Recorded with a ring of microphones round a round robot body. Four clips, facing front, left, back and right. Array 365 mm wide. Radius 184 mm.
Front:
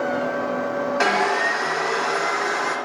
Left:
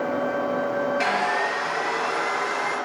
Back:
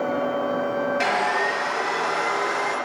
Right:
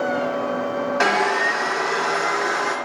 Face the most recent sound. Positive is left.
turn(degrees=-70)